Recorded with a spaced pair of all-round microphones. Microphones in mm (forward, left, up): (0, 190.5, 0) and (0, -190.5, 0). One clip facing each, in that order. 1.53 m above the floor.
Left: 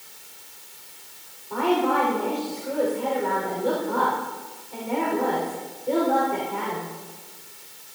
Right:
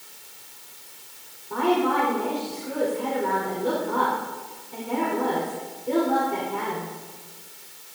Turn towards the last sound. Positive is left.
turn(degrees=-30)  # may be behind; listen again after turning